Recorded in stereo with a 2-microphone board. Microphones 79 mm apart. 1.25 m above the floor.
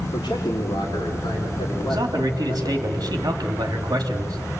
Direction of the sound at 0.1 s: 75° left (ahead or behind).